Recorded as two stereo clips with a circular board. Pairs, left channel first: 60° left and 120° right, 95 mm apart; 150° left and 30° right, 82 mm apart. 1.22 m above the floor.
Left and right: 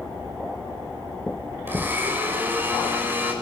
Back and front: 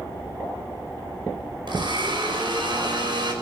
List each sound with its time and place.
1.7 s a blender: 50° right, 5.5 m